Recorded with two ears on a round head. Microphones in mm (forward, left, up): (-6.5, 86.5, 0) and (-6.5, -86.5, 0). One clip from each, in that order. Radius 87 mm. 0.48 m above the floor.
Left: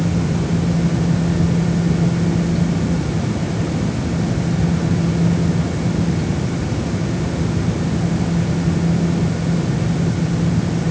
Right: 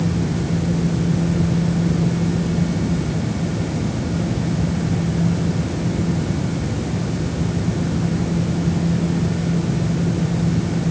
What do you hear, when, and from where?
Only background noise.